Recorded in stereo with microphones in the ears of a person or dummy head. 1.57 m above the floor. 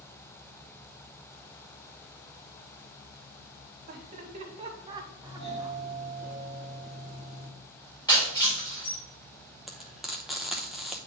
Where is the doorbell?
25° left (ahead or behind), 1.6 m.